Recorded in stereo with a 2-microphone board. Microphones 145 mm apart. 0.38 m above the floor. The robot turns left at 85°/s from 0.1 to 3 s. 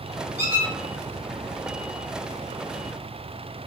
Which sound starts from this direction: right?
A squeak, at 0.4 s.